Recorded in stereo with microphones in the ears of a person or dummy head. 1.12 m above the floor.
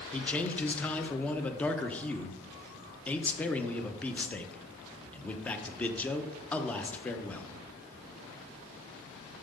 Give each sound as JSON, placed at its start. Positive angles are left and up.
{"t": 0.1, "sound": "a man speaking", "side_deg": 10, "distance_m": 0.8}